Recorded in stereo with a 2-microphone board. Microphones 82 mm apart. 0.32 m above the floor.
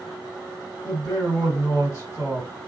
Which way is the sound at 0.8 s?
40° left (ahead or behind).